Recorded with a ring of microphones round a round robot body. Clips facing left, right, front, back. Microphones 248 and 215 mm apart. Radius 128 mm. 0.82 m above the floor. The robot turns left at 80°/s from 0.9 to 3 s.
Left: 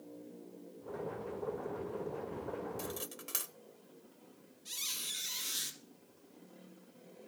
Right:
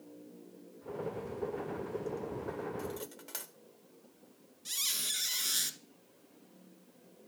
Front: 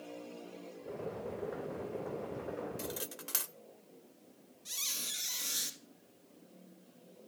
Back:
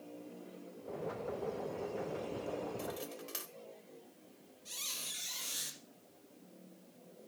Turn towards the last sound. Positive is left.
turn(degrees=-70)